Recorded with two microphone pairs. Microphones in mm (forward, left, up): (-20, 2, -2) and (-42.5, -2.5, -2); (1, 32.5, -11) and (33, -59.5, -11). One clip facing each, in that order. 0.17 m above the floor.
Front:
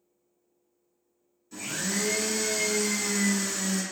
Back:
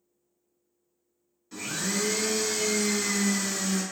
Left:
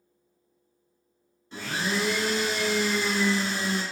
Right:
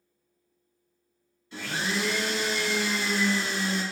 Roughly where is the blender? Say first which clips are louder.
Back 1 dB, left 1 dB; behind left.